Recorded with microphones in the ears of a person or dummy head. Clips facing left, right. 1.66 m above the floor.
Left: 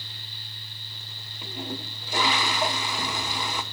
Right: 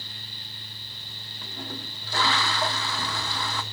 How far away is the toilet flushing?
About 0.8 m.